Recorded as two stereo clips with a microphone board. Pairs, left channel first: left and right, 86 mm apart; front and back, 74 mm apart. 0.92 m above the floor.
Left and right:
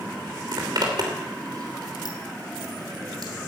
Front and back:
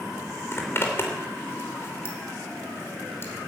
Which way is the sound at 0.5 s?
55° right.